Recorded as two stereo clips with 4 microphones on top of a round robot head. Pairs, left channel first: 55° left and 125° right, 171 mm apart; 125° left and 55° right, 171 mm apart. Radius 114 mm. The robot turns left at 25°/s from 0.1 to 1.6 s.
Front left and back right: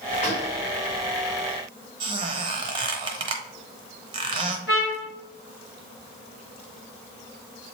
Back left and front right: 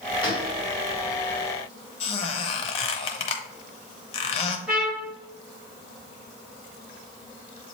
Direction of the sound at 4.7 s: 30° left.